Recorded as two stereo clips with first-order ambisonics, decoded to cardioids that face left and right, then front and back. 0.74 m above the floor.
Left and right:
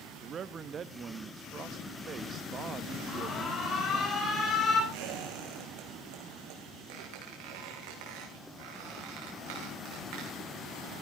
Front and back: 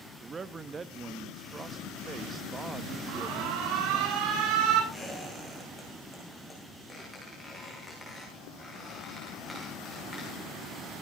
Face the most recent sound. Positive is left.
turn(degrees=-85)